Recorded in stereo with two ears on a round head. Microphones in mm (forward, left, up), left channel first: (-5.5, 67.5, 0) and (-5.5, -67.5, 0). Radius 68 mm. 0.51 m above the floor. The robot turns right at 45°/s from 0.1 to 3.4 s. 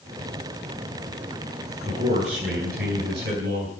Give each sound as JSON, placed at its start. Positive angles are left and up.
{"t": 1.8, "sound": "a man speaking", "azimuth_deg": -145, "distance_m": 5.5}